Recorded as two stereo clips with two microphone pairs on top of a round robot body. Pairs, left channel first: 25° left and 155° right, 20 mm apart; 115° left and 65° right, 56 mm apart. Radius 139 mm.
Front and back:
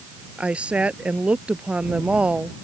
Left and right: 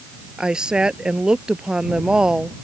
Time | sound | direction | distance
0.4 | a woman speaking | 140° right | ?